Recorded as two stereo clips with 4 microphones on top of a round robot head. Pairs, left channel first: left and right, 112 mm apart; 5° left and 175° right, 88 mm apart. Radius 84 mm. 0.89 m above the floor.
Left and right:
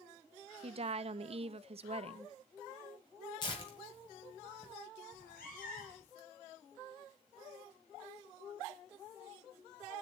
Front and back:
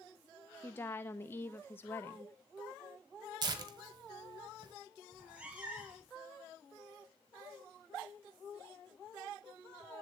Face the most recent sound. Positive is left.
turn(degrees=110)